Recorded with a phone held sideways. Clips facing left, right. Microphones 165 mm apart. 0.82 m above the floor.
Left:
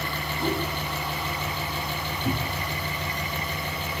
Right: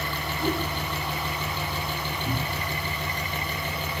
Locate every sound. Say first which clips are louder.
0.4 s a whoosh: even; 25° left (ahead or behind), 4 m
2.2 s a cupboard door: left 3 dB; 45° left (ahead or behind), 2.5 m